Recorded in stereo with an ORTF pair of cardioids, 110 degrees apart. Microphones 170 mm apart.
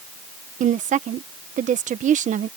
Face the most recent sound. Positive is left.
turn(degrees=-45)